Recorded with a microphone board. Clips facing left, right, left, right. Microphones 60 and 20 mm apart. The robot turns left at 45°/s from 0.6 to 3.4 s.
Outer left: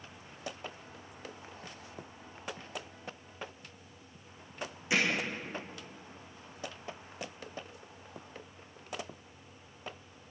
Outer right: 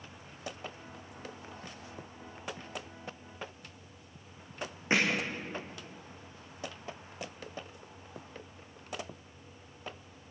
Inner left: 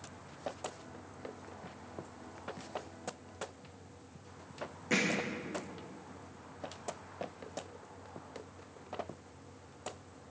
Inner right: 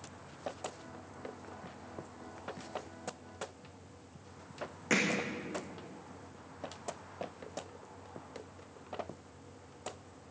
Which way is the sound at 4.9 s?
40° right (ahead or behind).